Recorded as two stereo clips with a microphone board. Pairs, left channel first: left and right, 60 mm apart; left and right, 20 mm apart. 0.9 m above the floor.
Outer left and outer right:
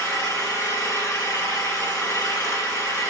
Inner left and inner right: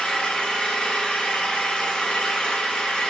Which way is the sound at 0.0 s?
85° left.